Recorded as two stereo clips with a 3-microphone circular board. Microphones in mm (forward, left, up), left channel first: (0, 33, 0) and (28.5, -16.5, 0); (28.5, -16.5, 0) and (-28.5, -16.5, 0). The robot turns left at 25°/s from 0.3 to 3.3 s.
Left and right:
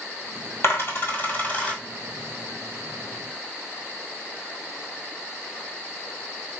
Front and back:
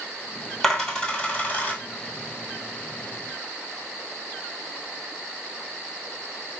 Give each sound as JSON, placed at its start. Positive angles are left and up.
{"t": 0.6, "sound": "a dropped coin", "azimuth_deg": 80, "distance_m": 1.3}